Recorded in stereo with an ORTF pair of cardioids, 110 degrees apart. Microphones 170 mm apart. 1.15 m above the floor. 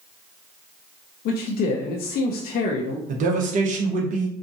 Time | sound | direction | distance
1.2 | a man speaking | 60° left | 0.6 m
3.1 | a man speaking | 50° right | 1.0 m